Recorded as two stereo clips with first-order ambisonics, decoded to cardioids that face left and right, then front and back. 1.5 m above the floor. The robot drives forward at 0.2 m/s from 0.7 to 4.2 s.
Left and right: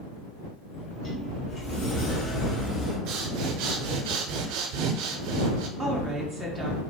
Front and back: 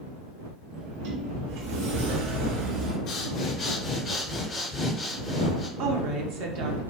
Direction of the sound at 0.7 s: 160° left.